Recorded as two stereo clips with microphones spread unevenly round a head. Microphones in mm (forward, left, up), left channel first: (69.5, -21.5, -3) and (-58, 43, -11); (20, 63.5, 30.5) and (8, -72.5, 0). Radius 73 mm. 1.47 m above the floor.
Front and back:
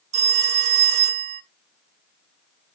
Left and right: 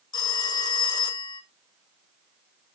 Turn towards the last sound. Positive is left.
turn(degrees=125)